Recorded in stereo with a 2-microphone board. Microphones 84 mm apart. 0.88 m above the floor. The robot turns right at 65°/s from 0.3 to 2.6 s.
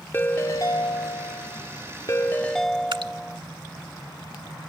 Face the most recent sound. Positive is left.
turn(degrees=-70)  # may be behind; listen again after turning